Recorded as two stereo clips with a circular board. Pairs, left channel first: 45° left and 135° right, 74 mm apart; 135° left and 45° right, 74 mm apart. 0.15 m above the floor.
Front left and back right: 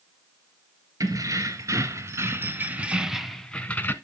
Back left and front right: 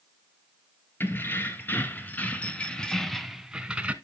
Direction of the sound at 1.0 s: 165° right.